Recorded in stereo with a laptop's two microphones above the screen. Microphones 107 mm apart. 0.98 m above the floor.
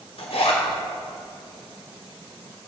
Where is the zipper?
70° left (ahead or behind), 3 m.